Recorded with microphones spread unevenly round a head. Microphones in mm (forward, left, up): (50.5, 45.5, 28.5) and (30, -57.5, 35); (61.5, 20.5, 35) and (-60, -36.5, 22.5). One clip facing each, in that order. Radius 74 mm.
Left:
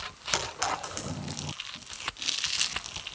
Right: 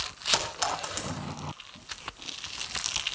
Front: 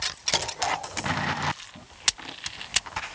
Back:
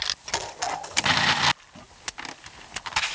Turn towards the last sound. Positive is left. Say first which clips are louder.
# right 1 dB, front 1 dB
turn(degrees=-30)